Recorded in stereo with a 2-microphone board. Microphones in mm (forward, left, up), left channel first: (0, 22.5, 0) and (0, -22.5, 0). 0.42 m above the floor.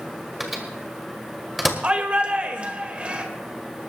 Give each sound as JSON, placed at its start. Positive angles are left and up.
{"t": 0.4, "sound": "a microwave", "side_deg": -5, "distance_m": 1.7}
{"t": 1.8, "sound": "a shout", "side_deg": -30, "distance_m": 1.5}